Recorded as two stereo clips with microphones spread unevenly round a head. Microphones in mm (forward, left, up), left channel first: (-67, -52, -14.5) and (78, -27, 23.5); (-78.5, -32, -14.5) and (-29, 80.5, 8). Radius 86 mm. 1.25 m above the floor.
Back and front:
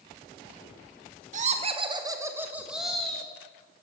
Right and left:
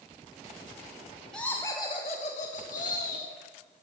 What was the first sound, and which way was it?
Laughter, 30° right.